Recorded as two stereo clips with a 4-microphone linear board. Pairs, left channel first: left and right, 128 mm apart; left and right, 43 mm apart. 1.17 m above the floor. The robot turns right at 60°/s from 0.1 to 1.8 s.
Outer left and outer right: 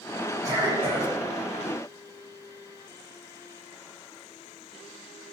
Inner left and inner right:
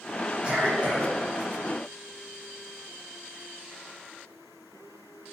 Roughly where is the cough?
Behind right.